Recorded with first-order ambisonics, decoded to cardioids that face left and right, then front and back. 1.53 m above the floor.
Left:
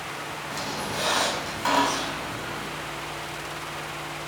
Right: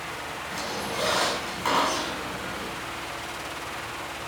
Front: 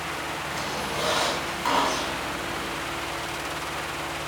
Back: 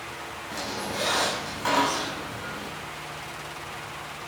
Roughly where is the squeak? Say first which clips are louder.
Even, back 1 dB; left.